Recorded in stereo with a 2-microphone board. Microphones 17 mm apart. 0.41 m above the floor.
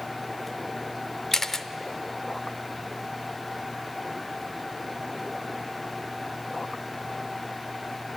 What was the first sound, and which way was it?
A camera shutter, 30° left (ahead or behind).